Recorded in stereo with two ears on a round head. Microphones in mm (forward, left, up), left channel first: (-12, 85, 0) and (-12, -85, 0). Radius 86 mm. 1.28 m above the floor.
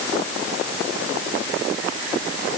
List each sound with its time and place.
Only background noise.